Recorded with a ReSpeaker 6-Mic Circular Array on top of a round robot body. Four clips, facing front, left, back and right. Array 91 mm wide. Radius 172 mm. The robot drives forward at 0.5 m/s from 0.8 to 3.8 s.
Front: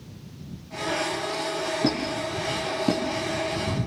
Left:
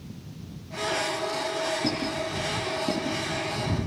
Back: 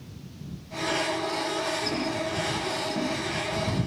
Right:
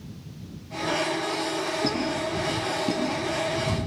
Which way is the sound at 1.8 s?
5° right.